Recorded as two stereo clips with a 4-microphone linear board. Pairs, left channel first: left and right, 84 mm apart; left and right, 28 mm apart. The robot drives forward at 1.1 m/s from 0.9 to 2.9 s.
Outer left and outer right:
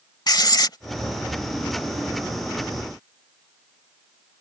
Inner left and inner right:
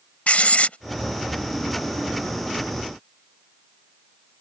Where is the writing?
55° left (ahead or behind).